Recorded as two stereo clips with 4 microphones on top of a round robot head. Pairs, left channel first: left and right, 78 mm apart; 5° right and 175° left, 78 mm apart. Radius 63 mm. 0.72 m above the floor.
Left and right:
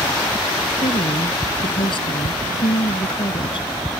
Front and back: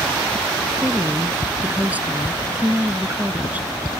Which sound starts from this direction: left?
A woman speaking, at 0.8 s.